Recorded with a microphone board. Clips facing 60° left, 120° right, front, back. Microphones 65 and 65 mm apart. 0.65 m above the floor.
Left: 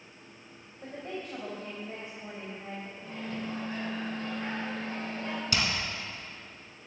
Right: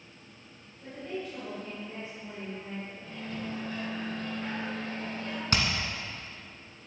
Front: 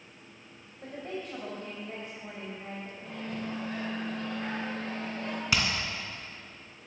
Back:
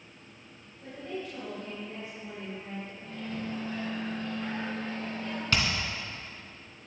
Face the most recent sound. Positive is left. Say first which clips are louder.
# right 2 dB, even
turn(degrees=-80)